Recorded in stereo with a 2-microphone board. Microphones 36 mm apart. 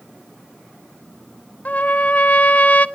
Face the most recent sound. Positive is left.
turn(degrees=45)  # may be behind; listen again after turning